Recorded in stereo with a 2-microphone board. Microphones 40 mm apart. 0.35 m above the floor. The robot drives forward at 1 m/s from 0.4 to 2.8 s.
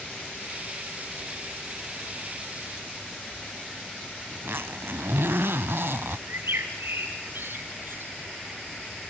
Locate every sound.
4.3 s a zipper: 75° right (ahead or behind), 0.5 m
6.3 s a bird: 70° right (ahead or behind), 2.5 m